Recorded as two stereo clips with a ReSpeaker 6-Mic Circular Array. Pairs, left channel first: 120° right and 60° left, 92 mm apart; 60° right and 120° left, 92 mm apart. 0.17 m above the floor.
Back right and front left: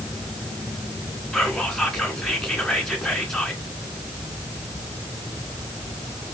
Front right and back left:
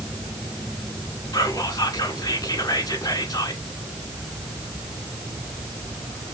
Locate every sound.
1.3 s whispering: 35° right, 1.7 m